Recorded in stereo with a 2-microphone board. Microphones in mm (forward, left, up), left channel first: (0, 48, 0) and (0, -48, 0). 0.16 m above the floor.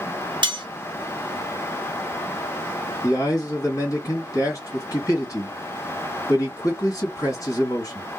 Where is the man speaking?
35° left (ahead or behind), 1.9 m.